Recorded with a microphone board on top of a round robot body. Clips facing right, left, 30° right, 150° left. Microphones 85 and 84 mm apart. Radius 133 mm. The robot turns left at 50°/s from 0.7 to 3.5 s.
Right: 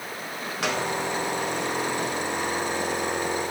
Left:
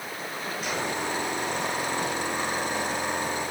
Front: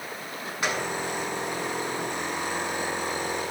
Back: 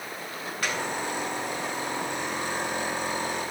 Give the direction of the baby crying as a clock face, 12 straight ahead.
No baby crying in this recording.